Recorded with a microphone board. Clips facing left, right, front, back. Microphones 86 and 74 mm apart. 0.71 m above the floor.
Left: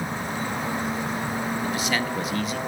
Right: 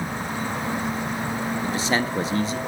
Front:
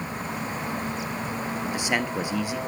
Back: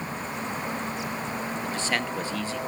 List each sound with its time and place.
1.6 s a man speaking: 65° right, 0.8 m